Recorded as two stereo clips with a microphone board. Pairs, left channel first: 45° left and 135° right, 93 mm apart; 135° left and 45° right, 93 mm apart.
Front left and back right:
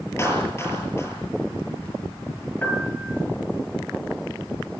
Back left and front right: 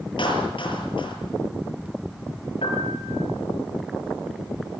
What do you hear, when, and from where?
0.2 s a clap: 105° left, 8 m
2.6 s a piano: 115° left, 5 m